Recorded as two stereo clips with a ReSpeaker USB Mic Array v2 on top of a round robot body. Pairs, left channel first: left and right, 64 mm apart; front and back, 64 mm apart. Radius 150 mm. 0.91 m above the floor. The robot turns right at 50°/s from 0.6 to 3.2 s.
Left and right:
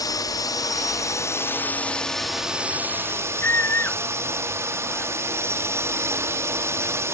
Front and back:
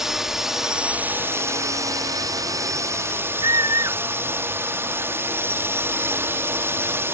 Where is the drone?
100° left; by 7.1 s 130° right.